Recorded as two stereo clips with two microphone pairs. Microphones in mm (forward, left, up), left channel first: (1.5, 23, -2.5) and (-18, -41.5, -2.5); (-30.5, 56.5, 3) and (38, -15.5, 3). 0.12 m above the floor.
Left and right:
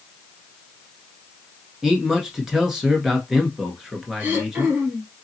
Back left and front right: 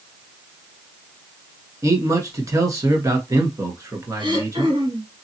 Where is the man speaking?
30° right, 1.2 m.